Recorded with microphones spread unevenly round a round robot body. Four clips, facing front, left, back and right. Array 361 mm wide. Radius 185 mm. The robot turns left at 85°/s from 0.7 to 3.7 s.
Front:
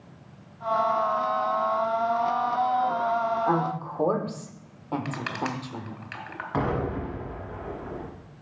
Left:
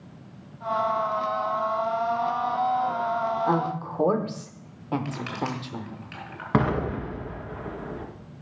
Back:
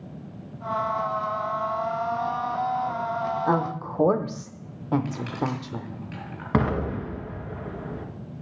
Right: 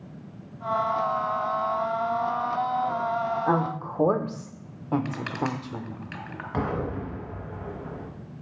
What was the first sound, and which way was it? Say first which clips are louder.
A woman speaking: even, back 1 dB; 150° right.